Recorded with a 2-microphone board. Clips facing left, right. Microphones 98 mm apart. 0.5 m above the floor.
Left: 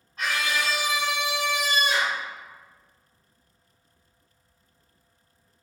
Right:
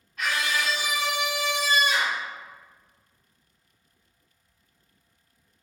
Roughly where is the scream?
Left.